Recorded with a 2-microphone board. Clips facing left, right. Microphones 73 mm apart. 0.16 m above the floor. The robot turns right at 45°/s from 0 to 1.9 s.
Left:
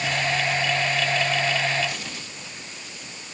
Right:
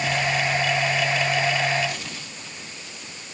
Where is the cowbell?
I don't hear a cowbell.